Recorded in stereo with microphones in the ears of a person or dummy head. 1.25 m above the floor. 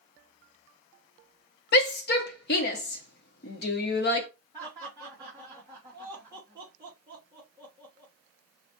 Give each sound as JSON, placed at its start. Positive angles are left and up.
{"t": 1.7, "sound": "a shout", "side_deg": 50, "distance_m": 0.7}
{"t": 4.5, "sound": "laughter", "side_deg": -15, "distance_m": 1.6}